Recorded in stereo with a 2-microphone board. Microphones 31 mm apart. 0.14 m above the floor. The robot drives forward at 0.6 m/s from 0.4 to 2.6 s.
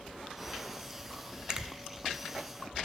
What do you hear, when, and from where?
1.5 s a finger snap: 20° right (ahead or behind), 0.8 m